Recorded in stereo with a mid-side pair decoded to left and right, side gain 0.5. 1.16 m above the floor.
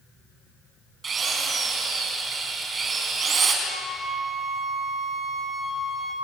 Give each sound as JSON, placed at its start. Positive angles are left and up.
{"t": 1.0, "sound": "a drill", "azimuth_deg": -40, "distance_m": 4.5}
{"t": 3.6, "sound": "a flute", "azimuth_deg": 5, "distance_m": 4.5}